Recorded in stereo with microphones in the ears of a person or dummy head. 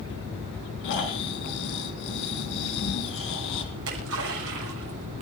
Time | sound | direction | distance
0.8 | snoring | 65° left (ahead or behind) | 4.5 m
3.7 | a splash | 60° right (ahead or behind) | 7.5 m